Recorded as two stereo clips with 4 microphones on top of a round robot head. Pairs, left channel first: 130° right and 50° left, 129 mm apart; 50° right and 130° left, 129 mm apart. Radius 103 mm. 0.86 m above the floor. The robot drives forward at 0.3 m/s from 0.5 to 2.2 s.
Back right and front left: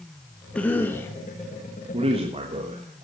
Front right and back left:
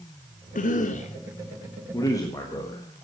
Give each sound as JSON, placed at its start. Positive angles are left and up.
{"t": 0.6, "sound": "a cough", "azimuth_deg": -50, "distance_m": 0.9}
{"t": 1.9, "sound": "a man speaking", "azimuth_deg": 10, "distance_m": 1.5}